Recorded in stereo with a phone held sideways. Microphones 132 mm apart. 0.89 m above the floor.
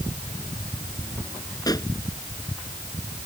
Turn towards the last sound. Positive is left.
turn(degrees=25)  # may be behind; listen again after turning